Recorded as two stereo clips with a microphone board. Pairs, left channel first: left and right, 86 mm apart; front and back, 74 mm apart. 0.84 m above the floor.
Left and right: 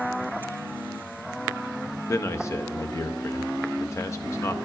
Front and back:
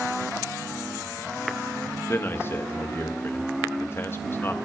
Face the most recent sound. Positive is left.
turn(degrees=45)